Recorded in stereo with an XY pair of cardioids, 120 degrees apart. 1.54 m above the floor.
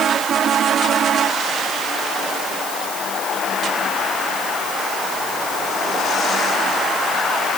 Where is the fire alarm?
I don't hear a fire alarm.